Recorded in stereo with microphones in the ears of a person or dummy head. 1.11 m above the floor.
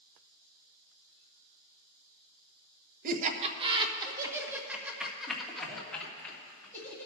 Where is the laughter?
45° right (ahead or behind), 1.1 m; by 7.1 s 15° left (ahead or behind), 2.5 m.